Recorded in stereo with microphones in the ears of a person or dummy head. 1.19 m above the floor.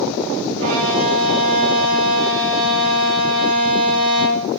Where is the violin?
75° right (ahead or behind), 3.5 m.